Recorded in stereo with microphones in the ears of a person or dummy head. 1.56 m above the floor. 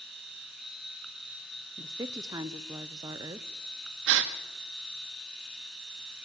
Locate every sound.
0.0 s a machine running: centre (ahead or behind), 4 m
1.8 s a woman speaking: 20° right (ahead or behind), 1.0 m
4.1 s a gasp: 75° right (ahead or behind), 2 m